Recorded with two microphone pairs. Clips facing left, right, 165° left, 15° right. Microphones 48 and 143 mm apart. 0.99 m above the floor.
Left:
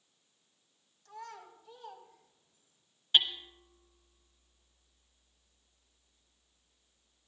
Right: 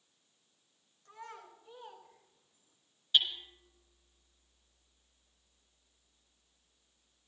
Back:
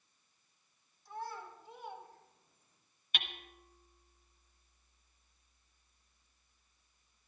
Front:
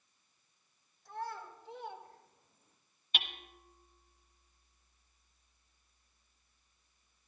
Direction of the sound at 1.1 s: 30° right.